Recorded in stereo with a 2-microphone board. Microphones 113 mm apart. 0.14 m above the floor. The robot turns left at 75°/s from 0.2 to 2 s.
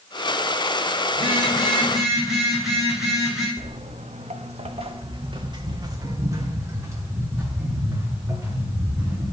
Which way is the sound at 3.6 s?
70° right (ahead or behind).